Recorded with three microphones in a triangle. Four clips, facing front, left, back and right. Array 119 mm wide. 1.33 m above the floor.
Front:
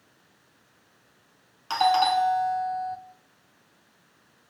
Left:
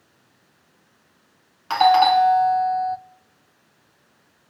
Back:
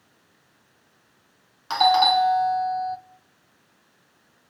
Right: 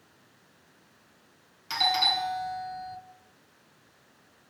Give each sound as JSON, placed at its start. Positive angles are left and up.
{"t": 1.7, "sound": "a doorbell", "azimuth_deg": 105, "distance_m": 1.4}